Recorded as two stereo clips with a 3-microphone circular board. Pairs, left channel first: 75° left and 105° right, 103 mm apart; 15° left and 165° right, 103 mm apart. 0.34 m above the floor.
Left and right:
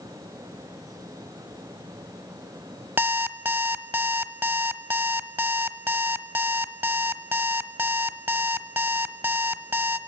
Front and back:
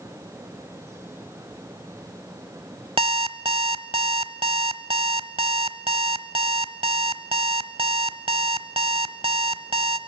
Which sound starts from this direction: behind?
An alarm clock, at 3.0 s.